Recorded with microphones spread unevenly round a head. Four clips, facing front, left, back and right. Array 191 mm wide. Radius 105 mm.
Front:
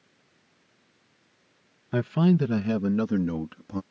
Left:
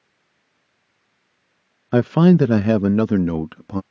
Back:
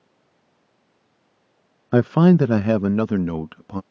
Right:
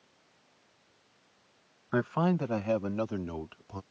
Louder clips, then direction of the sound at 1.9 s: Left 14 dB, back 8 dB; 145° left.